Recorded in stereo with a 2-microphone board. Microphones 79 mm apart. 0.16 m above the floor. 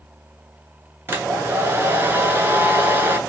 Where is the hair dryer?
30° right (ahead or behind), 0.7 m.